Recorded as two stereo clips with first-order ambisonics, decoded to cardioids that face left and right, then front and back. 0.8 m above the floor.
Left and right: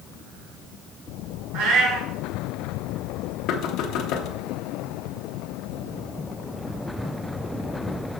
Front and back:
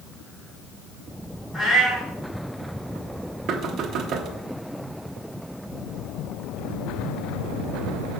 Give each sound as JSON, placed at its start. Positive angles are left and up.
{"t": 1.5, "sound": "a cat meowing", "azimuth_deg": -85, "distance_m": 3.5}
{"t": 3.5, "sound": "knocking", "azimuth_deg": 130, "distance_m": 0.8}